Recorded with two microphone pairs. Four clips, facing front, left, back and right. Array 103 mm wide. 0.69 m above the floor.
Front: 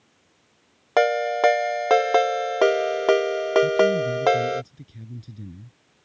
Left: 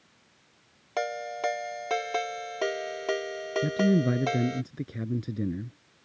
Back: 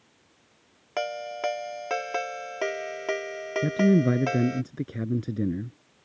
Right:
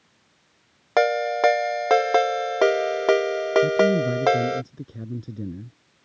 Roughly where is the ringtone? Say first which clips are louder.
Right 11 dB, front 11 dB; ahead right.